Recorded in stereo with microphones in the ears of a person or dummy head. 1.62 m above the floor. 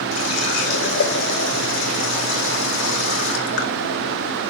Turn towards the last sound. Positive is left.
turn(degrees=55)  # may be behind; listen again after turning